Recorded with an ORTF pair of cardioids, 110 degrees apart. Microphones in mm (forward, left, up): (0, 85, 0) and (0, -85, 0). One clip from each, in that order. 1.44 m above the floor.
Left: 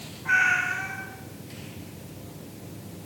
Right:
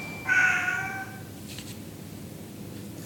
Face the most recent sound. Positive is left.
turn(degrees=0)